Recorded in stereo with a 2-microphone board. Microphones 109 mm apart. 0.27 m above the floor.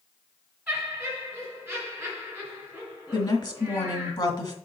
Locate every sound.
0.7 s laughter: 5° right (ahead or behind), 3 m
3.1 s a woman speaking: 45° left (ahead or behind), 2 m